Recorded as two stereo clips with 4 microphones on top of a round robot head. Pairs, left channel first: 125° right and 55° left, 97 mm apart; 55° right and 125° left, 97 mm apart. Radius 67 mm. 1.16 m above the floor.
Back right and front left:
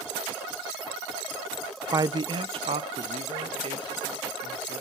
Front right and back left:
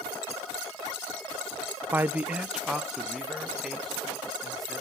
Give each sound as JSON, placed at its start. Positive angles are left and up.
{"t": 1.9, "sound": "a man speaking", "azimuth_deg": 70, "distance_m": 0.6}